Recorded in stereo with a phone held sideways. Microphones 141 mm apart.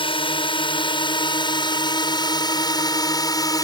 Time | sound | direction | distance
0.0 | a drone | 40° left (ahead or behind) | ?